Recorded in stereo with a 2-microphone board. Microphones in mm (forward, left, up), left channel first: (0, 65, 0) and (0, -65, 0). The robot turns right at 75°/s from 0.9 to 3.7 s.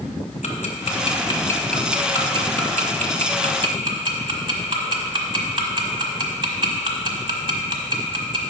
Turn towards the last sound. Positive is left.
turn(degrees=-35)  # may be behind; listen again after turning